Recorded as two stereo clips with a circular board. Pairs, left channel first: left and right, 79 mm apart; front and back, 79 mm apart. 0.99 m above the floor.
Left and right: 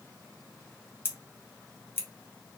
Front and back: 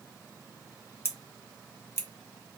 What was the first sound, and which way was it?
Scissors, 45° left.